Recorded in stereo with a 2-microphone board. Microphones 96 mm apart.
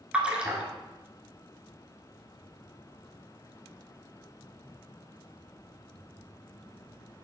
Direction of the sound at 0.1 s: 10° right (ahead or behind).